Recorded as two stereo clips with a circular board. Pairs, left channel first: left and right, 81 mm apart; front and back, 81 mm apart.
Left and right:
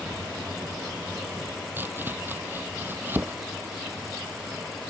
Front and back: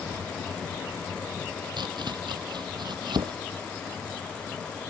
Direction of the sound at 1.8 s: 155° right.